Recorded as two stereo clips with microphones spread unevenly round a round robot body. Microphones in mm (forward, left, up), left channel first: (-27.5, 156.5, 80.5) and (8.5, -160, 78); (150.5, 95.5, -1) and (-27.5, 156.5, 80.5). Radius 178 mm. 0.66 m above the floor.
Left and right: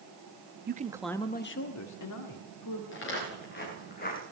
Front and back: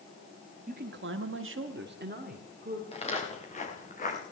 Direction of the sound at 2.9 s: 40° left.